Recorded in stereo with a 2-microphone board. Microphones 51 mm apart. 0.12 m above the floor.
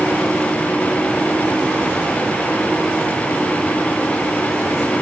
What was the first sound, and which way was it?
Only background noise.